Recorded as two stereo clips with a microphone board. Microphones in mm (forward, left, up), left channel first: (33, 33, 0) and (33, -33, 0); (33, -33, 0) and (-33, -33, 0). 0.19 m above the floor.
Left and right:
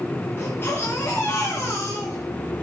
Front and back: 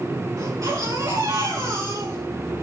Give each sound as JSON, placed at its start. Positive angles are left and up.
{"t": 0.4, "sound": "a baby crying", "azimuth_deg": 145, "distance_m": 9.5}